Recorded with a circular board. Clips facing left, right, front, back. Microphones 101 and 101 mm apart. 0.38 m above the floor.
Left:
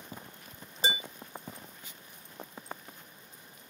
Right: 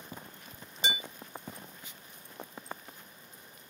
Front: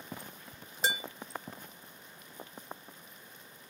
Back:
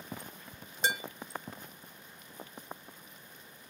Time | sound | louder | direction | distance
0.8 | dishes clattering | left 2 dB, back 1 dB | 90° left | 0.7 m